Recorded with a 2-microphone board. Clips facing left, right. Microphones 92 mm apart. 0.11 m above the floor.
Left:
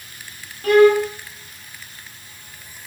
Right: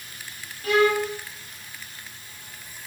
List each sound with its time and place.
0.6 s a violin: 50° left (ahead or behind), 0.6 m